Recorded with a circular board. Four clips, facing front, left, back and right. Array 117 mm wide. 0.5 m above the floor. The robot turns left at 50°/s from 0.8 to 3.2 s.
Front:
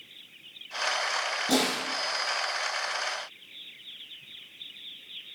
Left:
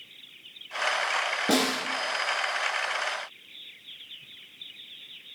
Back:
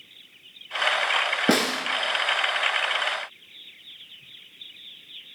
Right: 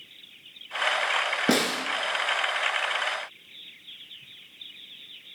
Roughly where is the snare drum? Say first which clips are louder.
Even, back 3 dB; behind right.